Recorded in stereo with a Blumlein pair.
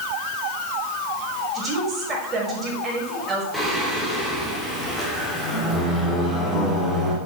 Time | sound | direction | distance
1.5 | a woman speaking | 20° right | 5.5 m
3.5 | singing | straight ahead | 3.5 m